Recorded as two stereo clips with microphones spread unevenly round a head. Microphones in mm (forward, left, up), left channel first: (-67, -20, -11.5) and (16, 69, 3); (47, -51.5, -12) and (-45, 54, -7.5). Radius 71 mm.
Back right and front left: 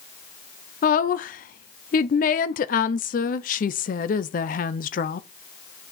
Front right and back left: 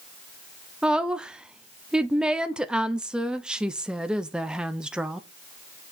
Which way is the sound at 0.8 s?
145° right.